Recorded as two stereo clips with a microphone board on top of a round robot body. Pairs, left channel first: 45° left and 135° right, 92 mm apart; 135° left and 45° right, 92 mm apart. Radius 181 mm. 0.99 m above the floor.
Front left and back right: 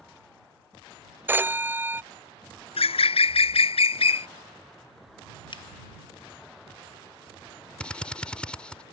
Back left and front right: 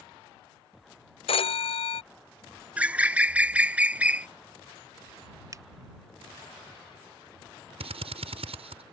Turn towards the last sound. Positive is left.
turn(degrees=-35)